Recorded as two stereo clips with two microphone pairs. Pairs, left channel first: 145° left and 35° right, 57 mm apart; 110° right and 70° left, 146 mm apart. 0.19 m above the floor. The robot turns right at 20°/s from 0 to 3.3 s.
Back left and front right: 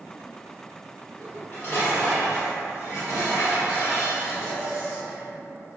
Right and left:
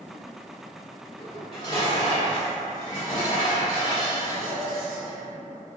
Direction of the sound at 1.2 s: 100° left.